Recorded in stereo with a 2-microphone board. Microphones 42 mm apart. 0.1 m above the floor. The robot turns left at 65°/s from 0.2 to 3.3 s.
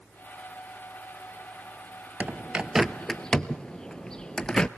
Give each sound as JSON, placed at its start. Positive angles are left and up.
{"t": 2.2, "sound": "a bird", "side_deg": -35, "distance_m": 0.7}